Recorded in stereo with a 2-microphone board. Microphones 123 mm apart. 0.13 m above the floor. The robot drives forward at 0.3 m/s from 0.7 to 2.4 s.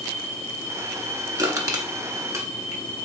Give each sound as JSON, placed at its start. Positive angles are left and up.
{"t": 1.4, "sound": "crushing", "side_deg": -30, "distance_m": 0.8}